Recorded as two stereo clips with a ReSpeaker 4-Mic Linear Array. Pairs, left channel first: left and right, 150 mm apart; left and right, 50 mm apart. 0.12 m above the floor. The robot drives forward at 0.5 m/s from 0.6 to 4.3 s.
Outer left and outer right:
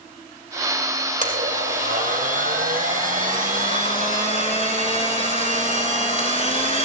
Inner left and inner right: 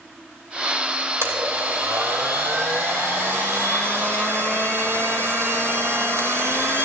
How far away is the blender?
About 2 m.